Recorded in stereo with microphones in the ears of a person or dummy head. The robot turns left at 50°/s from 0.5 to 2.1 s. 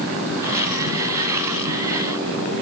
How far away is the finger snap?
No finger snap in this recording.